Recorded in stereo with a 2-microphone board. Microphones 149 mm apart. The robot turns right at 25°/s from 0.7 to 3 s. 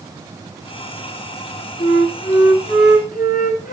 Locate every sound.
1.8 s a flute: 85° left, 7.5 m; by 3.7 s 115° left, 7.5 m